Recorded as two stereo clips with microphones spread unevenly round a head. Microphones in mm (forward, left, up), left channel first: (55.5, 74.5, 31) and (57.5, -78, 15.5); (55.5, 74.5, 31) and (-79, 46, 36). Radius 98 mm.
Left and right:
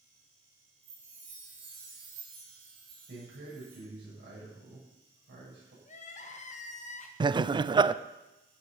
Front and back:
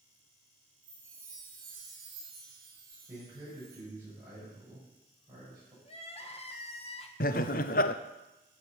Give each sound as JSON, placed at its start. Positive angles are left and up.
{"t": 0.8, "sound": "a chime", "azimuth_deg": -120, "distance_m": 8.0}
{"t": 3.1, "sound": "a man speaking", "azimuth_deg": -95, "distance_m": 8.0}
{"t": 5.8, "sound": "crying", "azimuth_deg": 55, "distance_m": 1.6}
{"t": 7.2, "sound": "laughter", "azimuth_deg": -25, "distance_m": 0.6}